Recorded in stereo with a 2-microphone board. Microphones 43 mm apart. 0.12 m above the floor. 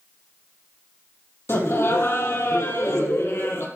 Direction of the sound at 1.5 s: 70° left (ahead or behind).